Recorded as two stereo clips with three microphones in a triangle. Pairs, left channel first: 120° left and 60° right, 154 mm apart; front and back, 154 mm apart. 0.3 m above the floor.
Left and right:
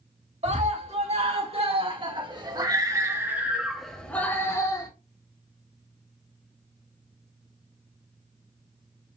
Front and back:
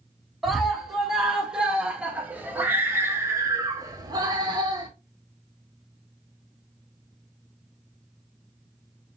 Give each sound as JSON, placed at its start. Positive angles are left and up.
{"t": 0.4, "sound": "a scream", "azimuth_deg": -90, "distance_m": 2.5}